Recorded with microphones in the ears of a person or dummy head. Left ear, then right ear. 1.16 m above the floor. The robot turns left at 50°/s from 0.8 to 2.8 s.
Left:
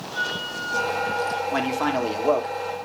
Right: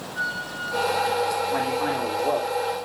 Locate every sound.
0.1 s a flute: 160° left, 4 m; by 1.4 s 130° left, 4 m
1.5 s a man speaking: 100° left, 2.5 m; by 2.8 s 35° left, 2.5 m